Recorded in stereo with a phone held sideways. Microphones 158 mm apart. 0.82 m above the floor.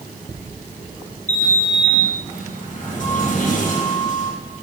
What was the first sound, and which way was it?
A sliding door, 55° left (ahead or behind).